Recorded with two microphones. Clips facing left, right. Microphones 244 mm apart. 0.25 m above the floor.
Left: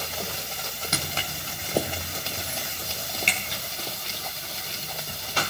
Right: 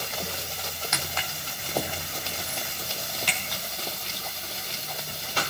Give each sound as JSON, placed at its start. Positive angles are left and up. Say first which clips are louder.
{"t": 0.9, "sound": "footsteps", "louder": "left 3 dB", "side_deg": 35, "distance_m": 0.7}